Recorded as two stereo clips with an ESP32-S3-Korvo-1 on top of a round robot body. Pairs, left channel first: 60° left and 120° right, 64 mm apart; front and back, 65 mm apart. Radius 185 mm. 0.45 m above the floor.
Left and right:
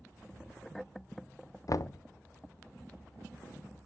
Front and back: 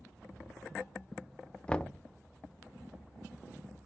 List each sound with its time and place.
1.7 s knocking: 70° left, 0.6 m